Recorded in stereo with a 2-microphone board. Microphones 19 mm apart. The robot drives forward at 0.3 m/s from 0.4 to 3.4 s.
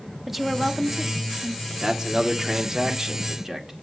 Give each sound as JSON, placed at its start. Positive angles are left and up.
{"t": 0.3, "sound": "a woman speaking", "side_deg": -10, "distance_m": 1.0}
{"t": 1.7, "sound": "a man speaking", "side_deg": -35, "distance_m": 1.4}